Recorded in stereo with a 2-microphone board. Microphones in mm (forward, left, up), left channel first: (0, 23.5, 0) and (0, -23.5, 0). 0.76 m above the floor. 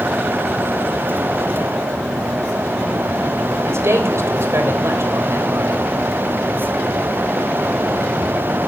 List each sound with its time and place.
3.7 s a man speaking: 70° right (ahead or behind), 4 m